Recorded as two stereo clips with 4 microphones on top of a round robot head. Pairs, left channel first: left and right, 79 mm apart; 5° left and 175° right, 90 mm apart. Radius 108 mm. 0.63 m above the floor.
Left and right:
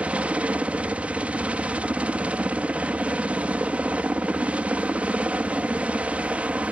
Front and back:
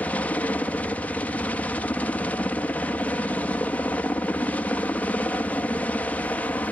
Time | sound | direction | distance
0.0 | a helicopter | 40° right | ?